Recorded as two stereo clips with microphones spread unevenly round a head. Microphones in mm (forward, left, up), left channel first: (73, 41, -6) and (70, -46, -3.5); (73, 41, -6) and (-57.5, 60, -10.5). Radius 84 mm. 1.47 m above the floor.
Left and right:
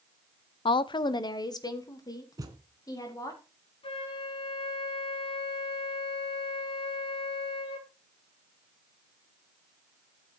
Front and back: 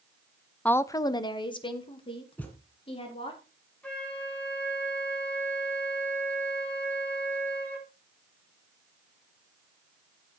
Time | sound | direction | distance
0.7 | a woman speaking | 75° left | 0.5 m
2.4 | a thud | 80° right | 1.8 m
3.8 | a flute | 70° left | 4 m